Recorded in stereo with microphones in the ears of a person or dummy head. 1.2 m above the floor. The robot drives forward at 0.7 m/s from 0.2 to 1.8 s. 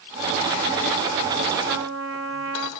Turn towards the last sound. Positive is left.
turn(degrees=-80)